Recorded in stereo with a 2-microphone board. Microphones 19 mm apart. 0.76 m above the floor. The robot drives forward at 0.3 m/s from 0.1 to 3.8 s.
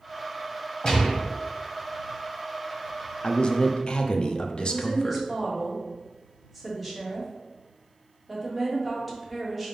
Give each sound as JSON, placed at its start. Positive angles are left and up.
{"t": 0.8, "sound": "a gunshot", "side_deg": 35, "distance_m": 2.0}
{"t": 3.2, "sound": "a man speaking", "side_deg": 50, "distance_m": 0.7}
{"t": 4.6, "sound": "a woman speaking", "side_deg": 0, "distance_m": 2.0}